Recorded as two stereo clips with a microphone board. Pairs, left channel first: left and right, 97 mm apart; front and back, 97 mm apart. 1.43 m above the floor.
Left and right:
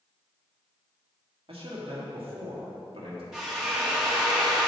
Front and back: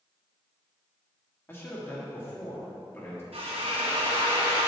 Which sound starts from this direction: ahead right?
A man speaking, at 1.5 s.